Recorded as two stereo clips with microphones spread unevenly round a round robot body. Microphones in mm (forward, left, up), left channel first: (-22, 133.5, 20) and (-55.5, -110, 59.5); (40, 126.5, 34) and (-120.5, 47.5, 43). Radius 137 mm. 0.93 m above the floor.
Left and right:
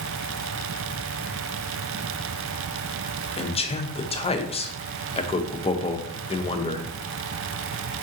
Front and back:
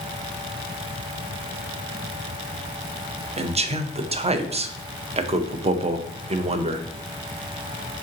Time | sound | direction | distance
3.4 | a man speaking | 145° left | 0.5 m